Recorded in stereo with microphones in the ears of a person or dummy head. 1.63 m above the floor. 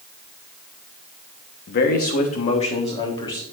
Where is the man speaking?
55° left (ahead or behind), 1.1 m; by 3.4 s 20° left (ahead or behind), 1.7 m.